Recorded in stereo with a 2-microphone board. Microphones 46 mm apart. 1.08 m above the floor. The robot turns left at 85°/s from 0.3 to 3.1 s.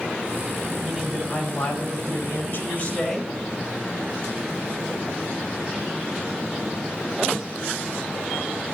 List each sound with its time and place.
0.8 s a man speaking: 160° right, 4 m; by 3.3 s 10° left, 4 m